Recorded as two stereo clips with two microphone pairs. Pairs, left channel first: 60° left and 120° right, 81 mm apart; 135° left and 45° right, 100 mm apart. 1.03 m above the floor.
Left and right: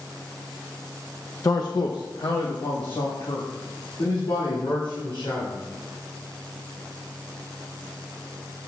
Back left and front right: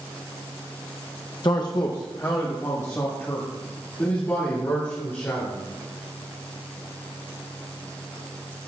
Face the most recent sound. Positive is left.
turn(degrees=65)